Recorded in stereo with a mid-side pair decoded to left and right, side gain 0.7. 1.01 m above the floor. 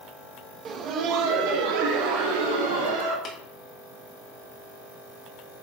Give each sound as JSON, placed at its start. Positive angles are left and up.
{"t": 0.7, "sound": "laughter", "azimuth_deg": -35, "distance_m": 0.9}
{"t": 3.2, "sound": "tapping", "azimuth_deg": 30, "distance_m": 2.0}